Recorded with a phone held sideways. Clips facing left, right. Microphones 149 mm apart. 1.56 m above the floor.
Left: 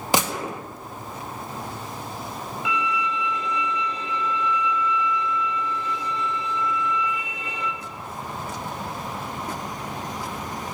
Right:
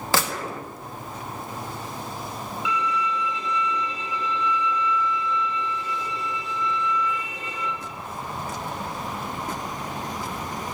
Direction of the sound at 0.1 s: 20° left (ahead or behind).